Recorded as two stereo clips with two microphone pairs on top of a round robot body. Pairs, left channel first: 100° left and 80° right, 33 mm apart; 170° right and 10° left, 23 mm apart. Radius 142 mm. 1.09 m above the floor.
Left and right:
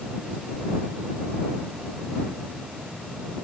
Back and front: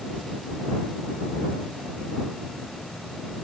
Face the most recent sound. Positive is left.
No sound to turn to.